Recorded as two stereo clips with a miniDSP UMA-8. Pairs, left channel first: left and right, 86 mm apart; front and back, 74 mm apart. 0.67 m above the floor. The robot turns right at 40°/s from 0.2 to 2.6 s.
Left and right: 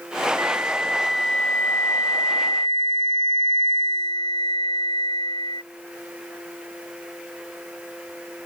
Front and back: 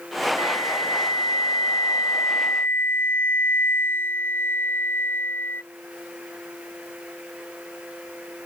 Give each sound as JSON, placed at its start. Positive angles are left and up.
{"t": 0.4, "sound": "a flute", "azimuth_deg": -30}